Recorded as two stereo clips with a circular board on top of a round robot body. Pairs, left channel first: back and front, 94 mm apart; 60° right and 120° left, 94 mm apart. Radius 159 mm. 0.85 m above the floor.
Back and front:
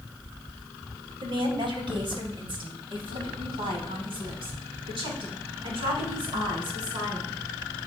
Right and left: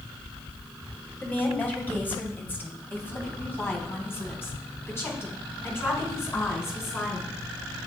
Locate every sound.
1.2 s a woman speaking: 10° left, 3 m; by 7.3 s straight ahead, 6 m